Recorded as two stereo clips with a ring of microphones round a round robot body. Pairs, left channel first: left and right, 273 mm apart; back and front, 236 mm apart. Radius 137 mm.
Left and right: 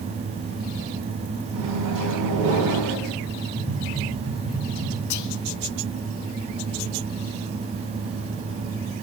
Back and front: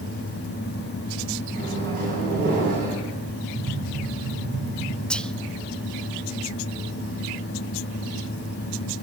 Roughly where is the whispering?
Left.